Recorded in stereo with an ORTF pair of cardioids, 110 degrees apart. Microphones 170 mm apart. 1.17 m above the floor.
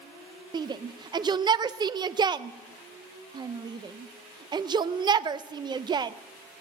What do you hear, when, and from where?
0.5 s a shout: 25° right, 0.6 m